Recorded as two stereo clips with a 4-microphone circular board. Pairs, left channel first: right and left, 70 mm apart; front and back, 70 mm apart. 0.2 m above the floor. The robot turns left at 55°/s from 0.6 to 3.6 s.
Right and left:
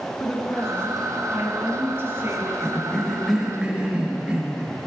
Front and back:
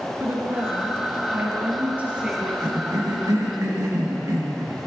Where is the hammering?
I don't hear hammering.